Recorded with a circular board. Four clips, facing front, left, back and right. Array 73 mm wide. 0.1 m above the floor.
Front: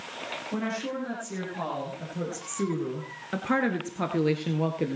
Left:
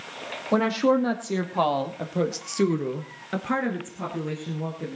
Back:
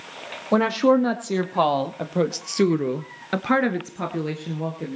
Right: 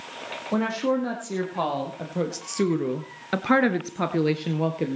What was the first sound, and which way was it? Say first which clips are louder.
A woman speaking: left 3 dB, back 15 dB; 160° left.